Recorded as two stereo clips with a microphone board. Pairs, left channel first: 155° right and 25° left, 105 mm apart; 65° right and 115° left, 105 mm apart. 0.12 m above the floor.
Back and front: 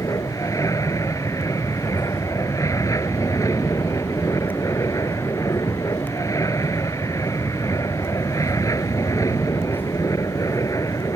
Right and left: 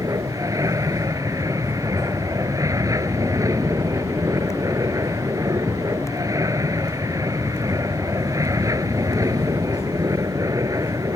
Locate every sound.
0.0 s an aircraft: 160° left